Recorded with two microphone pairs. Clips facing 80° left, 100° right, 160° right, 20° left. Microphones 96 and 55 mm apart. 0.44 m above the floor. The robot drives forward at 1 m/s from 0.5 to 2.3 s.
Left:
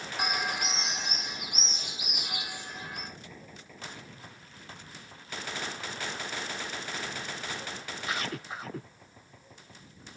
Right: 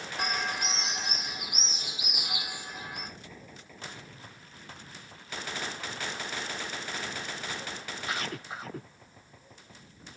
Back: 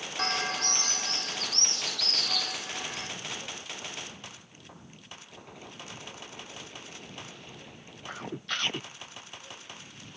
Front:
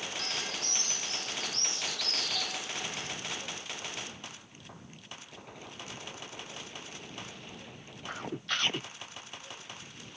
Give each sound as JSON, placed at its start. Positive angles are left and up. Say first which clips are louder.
{"t": 0.2, "sound": "a bird", "louder": "even, back 7 dB", "azimuth_deg": 160, "distance_m": 0.6}